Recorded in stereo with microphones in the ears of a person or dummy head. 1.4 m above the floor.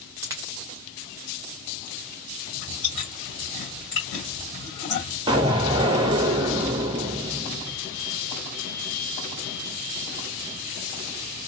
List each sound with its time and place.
0.2 s a dropped coin: 15° right (ahead or behind), 0.9 m
2.5 s chewing: 40° left (ahead or behind), 2 m
5.3 s an explosion: 25° right (ahead or behind), 0.7 m